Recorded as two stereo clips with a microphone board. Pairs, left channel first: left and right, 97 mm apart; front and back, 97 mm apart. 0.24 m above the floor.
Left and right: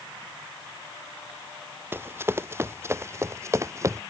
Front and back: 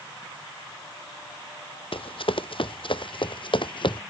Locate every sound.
1.9 s running footsteps: 25° right; by 4.0 s 30° right